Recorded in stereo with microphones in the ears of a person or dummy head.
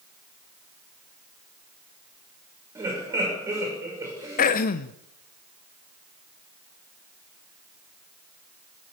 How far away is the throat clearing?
About 0.8 m.